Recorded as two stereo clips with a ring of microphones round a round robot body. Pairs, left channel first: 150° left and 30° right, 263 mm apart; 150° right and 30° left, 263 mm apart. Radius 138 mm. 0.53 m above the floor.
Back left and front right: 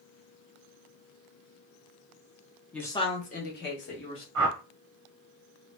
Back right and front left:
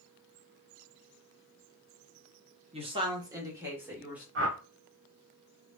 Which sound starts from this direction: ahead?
A whoosh, at 4.3 s.